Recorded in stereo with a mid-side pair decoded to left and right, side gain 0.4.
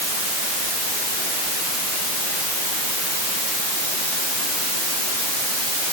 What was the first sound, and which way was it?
Only background noise.